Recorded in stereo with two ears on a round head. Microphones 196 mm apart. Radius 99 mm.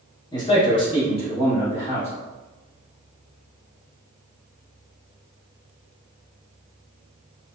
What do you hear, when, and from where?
0.3 s a man speaking: 20° left (ahead or behind), 0.9 m; by 2.1 s 25° left (ahead or behind), 1.4 m